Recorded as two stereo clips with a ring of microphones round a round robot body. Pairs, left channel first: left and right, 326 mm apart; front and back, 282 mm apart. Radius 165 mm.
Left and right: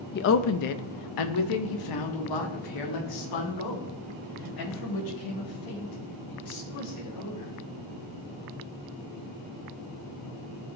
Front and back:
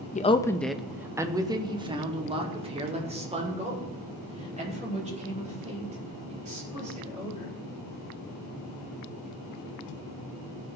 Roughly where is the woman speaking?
Ahead left.